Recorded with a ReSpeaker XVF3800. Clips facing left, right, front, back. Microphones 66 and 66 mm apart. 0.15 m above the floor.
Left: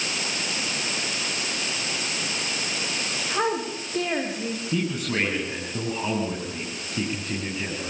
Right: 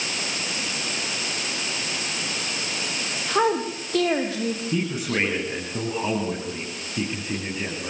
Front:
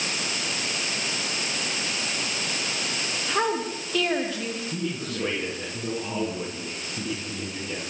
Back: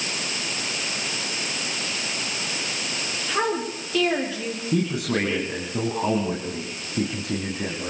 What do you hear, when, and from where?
3.3 s a woman speaking: 85° right, 6.5 m; by 4.6 s 95° right, 6.5 m
4.7 s a man speaking: 170° right, 8 m